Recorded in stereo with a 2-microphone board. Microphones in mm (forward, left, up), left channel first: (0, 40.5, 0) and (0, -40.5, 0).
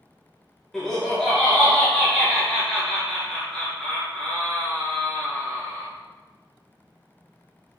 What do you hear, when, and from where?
0.7 s laughter: 5° left (ahead or behind), 0.6 m